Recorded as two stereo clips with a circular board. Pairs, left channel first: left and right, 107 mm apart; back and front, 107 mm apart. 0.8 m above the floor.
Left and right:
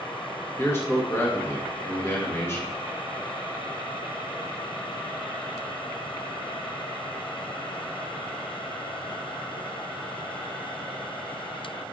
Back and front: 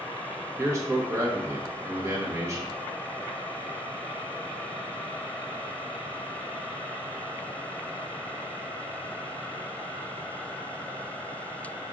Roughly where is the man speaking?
Ahead left.